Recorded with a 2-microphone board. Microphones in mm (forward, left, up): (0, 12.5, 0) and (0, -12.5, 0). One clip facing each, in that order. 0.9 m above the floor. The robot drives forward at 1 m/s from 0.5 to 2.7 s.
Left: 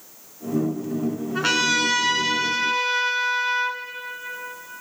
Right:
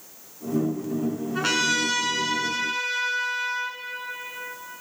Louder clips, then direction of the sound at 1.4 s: Left 3 dB; 10° left (ahead or behind).